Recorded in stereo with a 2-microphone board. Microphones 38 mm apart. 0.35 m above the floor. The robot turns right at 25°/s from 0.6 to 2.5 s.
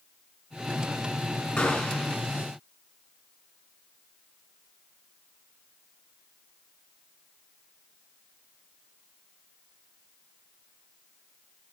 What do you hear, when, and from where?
1.6 s a gunshot: 20° left (ahead or behind), 3 m; by 2.1 s 10° left (ahead or behind), 3 m